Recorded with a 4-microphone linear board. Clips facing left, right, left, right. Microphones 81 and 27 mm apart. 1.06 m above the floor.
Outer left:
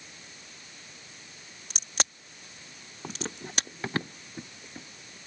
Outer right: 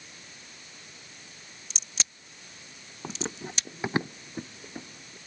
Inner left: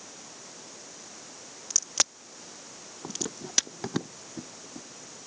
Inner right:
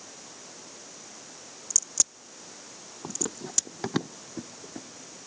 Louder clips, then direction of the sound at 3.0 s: Outer right 2 dB, inner right 1 dB; 5° right (ahead or behind).